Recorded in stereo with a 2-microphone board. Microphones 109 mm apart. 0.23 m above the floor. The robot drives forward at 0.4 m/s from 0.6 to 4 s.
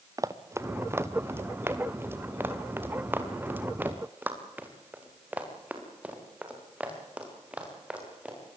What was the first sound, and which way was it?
Running footsteps, 30° right (ahead or behind).